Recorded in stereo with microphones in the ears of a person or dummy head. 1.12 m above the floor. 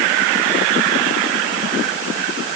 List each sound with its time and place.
Only background noise.